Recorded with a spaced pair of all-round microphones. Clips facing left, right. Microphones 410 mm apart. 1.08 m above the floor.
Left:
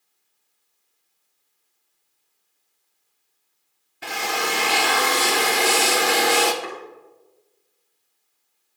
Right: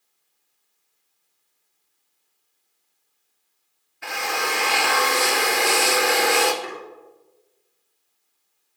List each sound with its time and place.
4.0 s a drill: 50° left (ahead or behind), 0.6 m
6.6 s chopping: 65° left (ahead or behind), 1.8 m